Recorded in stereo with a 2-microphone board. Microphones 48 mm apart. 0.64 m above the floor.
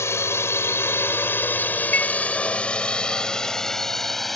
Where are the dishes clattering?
40° left (ahead or behind).